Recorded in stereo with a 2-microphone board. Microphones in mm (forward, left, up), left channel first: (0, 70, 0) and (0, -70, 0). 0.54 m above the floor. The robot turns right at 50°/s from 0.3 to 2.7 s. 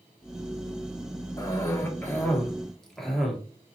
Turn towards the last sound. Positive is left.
turn(degrees=0)  # may be behind; listen again after turning